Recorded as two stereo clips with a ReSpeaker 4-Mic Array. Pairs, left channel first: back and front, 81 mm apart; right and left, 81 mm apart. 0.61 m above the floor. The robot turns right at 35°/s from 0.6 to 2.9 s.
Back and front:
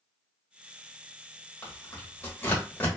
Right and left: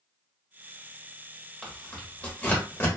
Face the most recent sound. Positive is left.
turn(degrees=-120)